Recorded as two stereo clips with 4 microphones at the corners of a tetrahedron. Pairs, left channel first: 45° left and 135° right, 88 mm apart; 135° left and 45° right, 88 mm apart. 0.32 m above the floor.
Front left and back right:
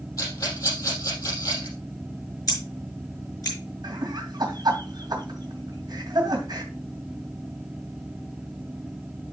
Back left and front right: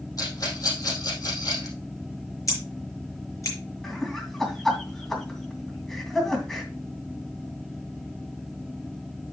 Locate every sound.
0.2 s a rattle: 90° left, 5.5 m
2.5 s scissors: 85° left, 5 m
3.8 s laughter: 140° right, 2.5 m